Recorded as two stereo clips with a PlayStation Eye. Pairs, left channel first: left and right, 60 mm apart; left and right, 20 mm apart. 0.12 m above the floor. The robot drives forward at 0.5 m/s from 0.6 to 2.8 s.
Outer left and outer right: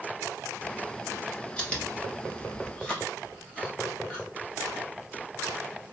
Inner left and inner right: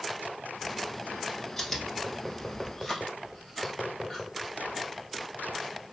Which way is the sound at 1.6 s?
15° left (ahead or behind).